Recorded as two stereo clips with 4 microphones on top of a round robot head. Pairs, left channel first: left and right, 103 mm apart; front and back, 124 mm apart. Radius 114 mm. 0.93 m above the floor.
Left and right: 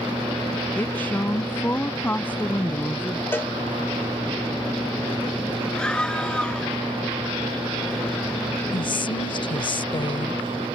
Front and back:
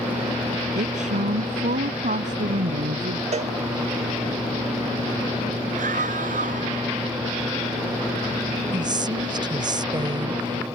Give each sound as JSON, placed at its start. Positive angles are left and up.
{"t": 0.8, "sound": "a woman speaking", "azimuth_deg": 160}
{"t": 3.3, "sound": "a cowbell", "azimuth_deg": 160}
{"t": 5.8, "sound": "a scream", "azimuth_deg": 170}
{"t": 8.7, "sound": "a woman speaking", "azimuth_deg": 125}